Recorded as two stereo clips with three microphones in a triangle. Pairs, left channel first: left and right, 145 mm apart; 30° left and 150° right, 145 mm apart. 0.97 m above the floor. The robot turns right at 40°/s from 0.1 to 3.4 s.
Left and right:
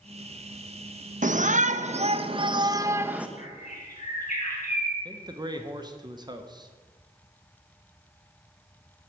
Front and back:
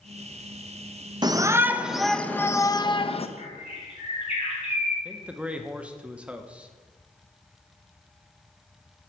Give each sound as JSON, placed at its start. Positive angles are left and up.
{"t": 1.2, "sound": "a shout", "azimuth_deg": -90, "distance_m": 0.6}
{"t": 3.4, "sound": "a bird", "azimuth_deg": 55, "distance_m": 4.0}
{"t": 5.0, "sound": "a man speaking", "azimuth_deg": -75, "distance_m": 0.9}